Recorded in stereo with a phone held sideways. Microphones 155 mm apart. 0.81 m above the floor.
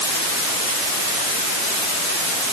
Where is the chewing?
No chewing in this recording.